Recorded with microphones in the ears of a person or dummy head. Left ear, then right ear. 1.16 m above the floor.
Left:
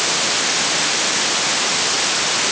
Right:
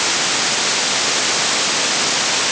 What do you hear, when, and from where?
Only background noise.